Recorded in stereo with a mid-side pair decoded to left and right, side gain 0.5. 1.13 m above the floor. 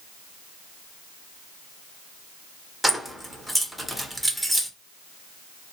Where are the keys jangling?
5° right, 0.8 m.